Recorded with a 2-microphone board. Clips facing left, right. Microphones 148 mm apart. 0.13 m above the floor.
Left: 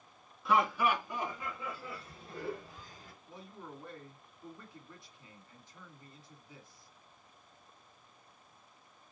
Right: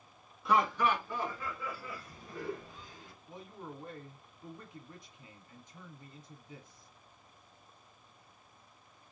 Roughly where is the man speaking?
Centre.